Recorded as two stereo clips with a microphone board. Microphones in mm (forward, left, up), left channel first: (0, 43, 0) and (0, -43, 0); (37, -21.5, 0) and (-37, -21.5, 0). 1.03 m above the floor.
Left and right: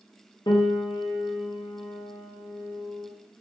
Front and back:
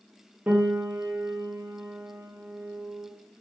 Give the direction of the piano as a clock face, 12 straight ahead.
8 o'clock.